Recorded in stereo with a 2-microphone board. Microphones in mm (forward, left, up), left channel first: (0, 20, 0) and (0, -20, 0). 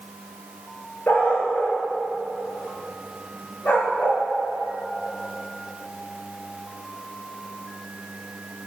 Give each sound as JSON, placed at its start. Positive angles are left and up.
{"t": 1.1, "sound": "a dog barking", "side_deg": 50, "distance_m": 9.0}